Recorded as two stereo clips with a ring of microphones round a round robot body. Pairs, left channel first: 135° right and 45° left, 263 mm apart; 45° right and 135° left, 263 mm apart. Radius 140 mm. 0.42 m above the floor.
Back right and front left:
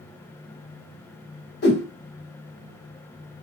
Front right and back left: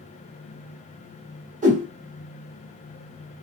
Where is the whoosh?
170° right, 1.4 m.